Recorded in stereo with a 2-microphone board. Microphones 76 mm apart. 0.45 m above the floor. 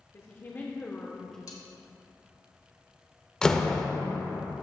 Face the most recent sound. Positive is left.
turn(degrees=10)  # may be behind; listen again after turning